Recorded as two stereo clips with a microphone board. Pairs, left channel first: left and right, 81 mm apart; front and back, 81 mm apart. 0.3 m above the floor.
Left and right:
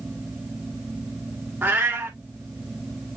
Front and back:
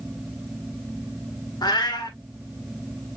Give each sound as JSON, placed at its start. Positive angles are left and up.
{"t": 1.6, "sound": "a cat meowing", "azimuth_deg": -25, "distance_m": 1.4}